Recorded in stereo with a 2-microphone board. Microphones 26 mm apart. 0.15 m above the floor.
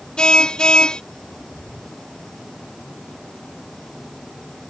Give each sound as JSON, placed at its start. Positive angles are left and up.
{"t": 0.2, "sound": "a car horn", "side_deg": 40}